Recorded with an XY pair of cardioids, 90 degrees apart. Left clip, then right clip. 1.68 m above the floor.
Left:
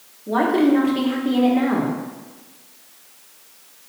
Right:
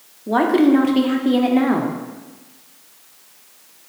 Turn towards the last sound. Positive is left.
turn(degrees=-45)